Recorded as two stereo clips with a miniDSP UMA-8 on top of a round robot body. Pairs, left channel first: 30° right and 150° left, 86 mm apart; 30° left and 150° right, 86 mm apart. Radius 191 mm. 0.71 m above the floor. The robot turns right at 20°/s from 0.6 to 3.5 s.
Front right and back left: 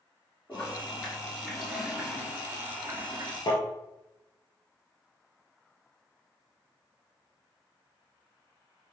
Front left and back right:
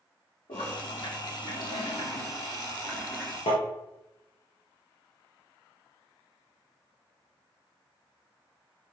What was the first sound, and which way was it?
A toilet flushing, 40° left.